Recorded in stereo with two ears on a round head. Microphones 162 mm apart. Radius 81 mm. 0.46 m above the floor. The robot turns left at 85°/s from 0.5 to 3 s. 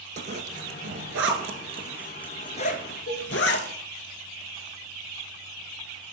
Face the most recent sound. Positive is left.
turn(degrees=55)  # may be behind; listen again after turning